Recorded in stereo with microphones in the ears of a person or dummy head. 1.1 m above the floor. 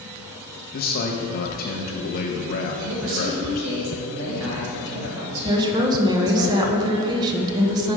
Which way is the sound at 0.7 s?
45° left (ahead or behind).